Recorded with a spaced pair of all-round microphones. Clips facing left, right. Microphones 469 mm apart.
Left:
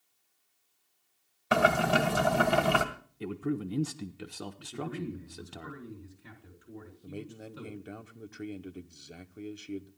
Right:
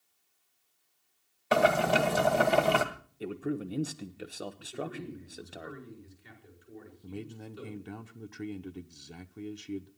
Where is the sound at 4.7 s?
75° left (ahead or behind), 5 m.